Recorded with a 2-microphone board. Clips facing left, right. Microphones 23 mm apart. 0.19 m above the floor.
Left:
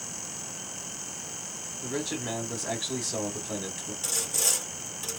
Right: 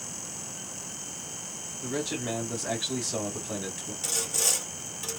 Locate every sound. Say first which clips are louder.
1.8 s a man speaking: right 1 dB; centre (ahead or behind), 1.1 m
4.0 s sawing: even; centre (ahead or behind), 0.7 m